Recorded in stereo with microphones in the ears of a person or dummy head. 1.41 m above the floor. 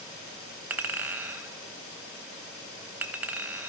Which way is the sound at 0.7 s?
10° right (ahead or behind).